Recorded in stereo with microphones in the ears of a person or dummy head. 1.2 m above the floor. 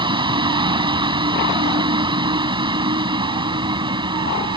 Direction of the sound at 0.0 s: 25° right (ahead or behind).